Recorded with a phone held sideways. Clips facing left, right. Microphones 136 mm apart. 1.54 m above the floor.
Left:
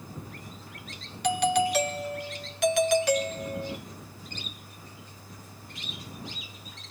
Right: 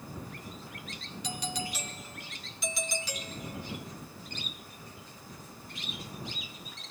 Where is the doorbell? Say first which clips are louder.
Left 14 dB; 70° left (ahead or behind).